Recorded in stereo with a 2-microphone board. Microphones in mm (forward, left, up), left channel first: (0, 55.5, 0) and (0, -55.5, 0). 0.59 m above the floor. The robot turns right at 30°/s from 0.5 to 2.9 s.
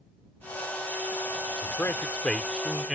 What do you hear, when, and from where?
1.6 s a man speaking: 150° left; by 3.0 s 175° right